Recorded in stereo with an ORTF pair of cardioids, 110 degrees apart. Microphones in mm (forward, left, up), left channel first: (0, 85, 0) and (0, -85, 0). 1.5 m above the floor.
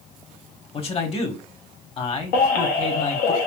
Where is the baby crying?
70° left, 1.2 m.